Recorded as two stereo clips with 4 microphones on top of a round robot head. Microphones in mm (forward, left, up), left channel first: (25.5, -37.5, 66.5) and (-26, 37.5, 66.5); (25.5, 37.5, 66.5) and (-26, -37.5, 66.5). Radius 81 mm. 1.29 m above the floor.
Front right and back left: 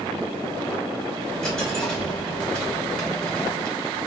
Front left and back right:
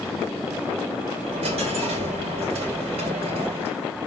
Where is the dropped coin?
135° right, 4 m.